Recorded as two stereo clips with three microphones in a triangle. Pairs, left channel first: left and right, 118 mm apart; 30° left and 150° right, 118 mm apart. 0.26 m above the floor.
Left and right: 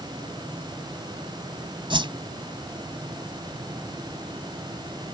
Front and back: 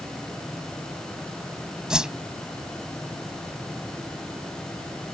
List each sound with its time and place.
1.9 s a whoosh: 70° right